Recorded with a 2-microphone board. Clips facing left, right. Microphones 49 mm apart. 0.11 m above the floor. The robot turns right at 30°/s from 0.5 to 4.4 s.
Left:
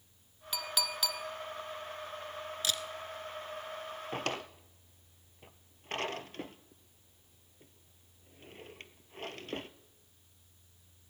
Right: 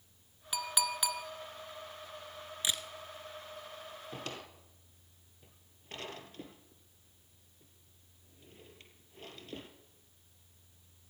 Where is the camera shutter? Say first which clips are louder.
Even; 20° right (ahead or behind), 0.8 m; by 2.9 s 25° right (ahead or behind), 0.8 m.